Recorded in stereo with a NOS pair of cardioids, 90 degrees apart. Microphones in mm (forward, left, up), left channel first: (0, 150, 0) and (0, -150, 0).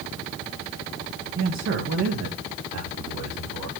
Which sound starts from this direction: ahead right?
A man speaking, at 1.4 s.